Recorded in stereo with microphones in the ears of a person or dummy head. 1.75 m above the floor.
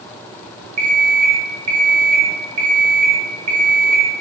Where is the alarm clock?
35° right (ahead or behind), 1.5 m.